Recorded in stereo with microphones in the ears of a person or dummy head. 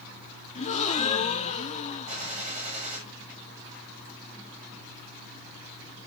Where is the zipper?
No zipper in this recording.